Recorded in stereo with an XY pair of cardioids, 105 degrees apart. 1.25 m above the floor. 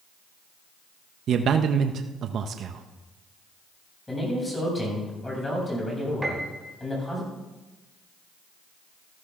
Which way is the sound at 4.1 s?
15° left.